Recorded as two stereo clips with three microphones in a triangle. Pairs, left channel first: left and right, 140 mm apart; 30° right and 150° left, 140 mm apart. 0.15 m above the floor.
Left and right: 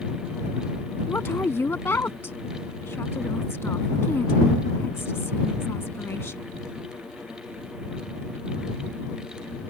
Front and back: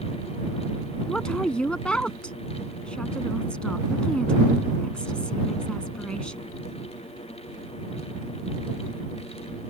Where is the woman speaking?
40° left.